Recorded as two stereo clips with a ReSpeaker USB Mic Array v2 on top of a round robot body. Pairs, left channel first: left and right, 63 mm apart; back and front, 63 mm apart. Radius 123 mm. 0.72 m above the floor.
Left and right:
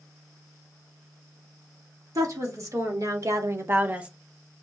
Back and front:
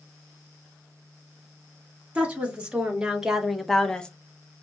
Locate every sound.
2.1 s a woman speaking: 70° right, 1.9 m; by 4.1 s 140° right, 0.7 m